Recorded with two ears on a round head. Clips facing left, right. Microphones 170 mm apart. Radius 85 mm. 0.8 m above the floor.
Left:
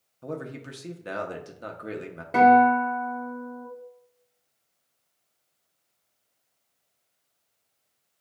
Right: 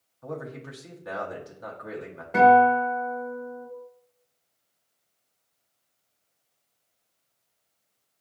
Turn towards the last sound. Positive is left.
turn(degrees=25)  # may be behind; listen again after turning